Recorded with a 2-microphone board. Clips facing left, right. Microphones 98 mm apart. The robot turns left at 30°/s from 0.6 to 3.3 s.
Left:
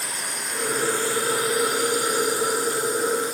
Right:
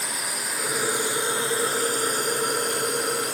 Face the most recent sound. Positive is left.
turn(degrees=-85)